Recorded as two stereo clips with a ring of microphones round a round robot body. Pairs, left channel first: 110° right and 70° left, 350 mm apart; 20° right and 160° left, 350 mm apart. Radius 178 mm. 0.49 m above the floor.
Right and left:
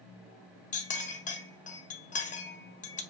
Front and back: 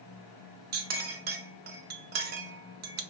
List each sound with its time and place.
0.7 s a clink: 165° right, 0.6 m